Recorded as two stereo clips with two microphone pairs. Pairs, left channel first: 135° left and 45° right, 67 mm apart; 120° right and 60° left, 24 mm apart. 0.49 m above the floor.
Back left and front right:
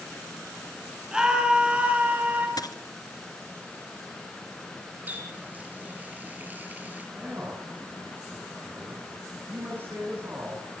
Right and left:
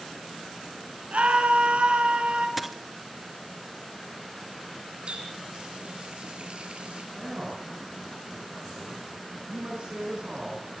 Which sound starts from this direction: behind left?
A dropped coin, at 2.6 s.